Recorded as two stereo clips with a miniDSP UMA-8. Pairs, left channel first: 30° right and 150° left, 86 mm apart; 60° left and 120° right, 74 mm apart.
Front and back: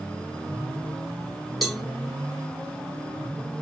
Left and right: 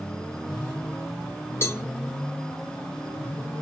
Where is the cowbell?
60° left, 0.6 m.